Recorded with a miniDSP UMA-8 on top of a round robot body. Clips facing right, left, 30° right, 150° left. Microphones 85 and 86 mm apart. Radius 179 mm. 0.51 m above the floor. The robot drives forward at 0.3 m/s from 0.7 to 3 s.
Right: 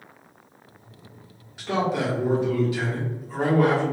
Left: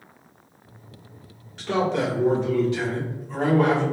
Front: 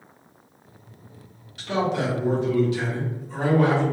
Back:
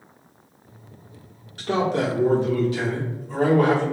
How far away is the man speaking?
About 1.9 m.